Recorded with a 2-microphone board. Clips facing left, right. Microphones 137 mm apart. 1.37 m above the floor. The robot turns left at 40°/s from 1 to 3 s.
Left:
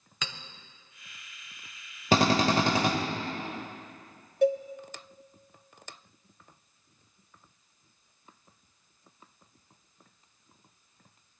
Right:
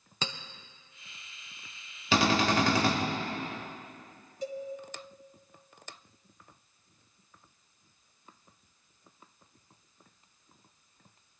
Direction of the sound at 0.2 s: 30° right (ahead or behind).